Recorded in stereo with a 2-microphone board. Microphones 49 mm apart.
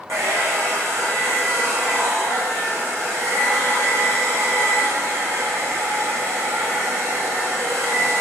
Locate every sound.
0.1 s a hair dryer: 85° right, 5 m